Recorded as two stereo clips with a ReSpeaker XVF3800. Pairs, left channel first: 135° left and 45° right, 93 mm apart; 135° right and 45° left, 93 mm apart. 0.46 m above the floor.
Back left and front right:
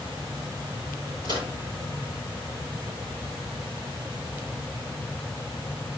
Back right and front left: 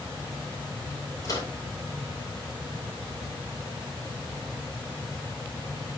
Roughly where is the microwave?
Right.